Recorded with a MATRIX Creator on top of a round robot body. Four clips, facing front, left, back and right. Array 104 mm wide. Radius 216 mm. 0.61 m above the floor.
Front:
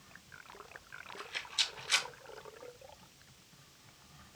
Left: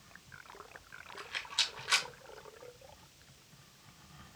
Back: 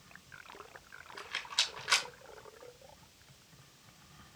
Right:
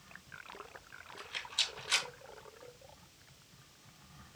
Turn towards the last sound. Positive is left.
turn(degrees=160)